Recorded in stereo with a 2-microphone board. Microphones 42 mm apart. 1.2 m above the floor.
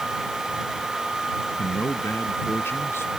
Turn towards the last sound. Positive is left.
turn(degrees=70)  # may be behind; listen again after turning